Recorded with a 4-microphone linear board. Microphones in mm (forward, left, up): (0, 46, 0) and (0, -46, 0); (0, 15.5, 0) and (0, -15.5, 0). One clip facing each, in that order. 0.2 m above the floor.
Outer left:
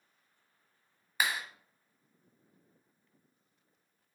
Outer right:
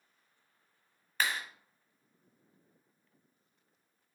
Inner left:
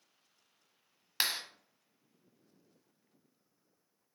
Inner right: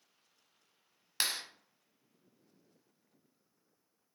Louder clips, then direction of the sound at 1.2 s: Outer left 1 dB, inner left 1 dB; 10° left (ahead or behind).